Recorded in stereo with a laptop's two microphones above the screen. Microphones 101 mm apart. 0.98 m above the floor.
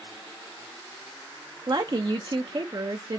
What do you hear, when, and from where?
1.7 s a woman speaking: 50° right (ahead or behind), 0.5 m